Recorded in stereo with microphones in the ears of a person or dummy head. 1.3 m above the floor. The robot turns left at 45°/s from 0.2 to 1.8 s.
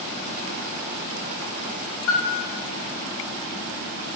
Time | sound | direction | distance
2.1 | a piano | 60° left (ahead or behind) | 0.8 m